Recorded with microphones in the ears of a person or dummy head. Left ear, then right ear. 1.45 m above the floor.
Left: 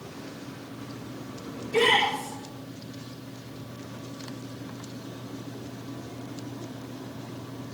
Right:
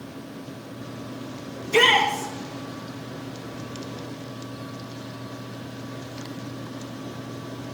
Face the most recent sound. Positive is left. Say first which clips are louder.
# right 4 dB
turn(degrees=-60)  # may be behind; listen again after turning